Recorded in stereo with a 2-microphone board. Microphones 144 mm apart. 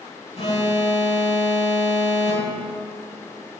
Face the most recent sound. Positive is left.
turn(degrees=50)  # may be behind; listen again after turning